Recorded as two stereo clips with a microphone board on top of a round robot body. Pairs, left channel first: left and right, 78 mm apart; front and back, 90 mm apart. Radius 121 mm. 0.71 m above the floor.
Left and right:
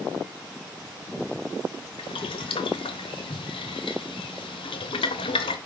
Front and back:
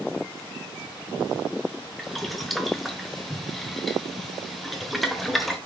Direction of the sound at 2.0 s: 90° left.